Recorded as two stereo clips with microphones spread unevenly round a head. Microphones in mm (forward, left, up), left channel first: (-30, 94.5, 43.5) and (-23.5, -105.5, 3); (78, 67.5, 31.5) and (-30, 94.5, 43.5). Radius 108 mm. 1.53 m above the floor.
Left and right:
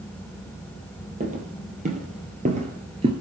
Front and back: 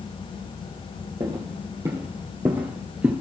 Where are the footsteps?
145° right, 2.5 m; by 3.1 s 135° right, 1.6 m.